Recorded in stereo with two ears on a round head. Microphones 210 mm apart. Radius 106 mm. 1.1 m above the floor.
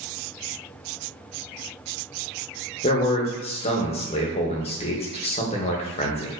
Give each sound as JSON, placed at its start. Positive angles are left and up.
{"t": 2.8, "sound": "a man speaking", "side_deg": 30, "distance_m": 0.5}